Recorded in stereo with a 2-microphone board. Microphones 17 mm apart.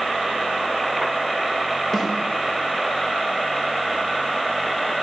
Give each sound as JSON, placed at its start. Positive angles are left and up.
{"t": 1.9, "sound": "a snare drum", "side_deg": 25, "distance_m": 7.5}